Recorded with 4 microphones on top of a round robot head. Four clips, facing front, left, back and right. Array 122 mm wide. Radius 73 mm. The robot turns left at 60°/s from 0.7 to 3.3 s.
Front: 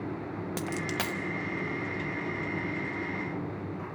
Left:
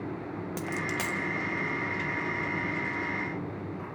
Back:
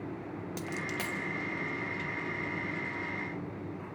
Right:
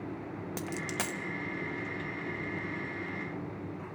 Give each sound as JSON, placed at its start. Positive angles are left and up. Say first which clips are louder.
{"t": 0.6, "sound": "a dropped coin", "louder": "left 3 dB, front 4 dB", "azimuth_deg": -5, "distance_m": 1.0}